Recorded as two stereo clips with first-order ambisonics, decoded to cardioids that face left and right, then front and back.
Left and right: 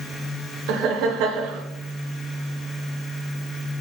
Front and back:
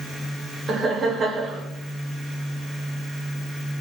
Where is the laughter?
115° right, 0.6 m.